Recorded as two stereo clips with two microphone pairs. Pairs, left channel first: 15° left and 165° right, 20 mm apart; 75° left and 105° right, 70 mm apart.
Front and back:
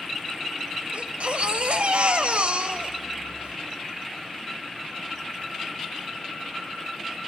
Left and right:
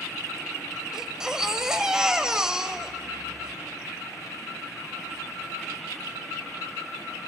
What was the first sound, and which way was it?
A baby crying, straight behind.